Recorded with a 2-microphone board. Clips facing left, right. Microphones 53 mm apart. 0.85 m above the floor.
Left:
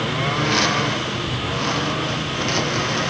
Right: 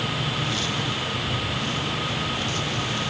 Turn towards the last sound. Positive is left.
turn(degrees=65)  # may be behind; listen again after turning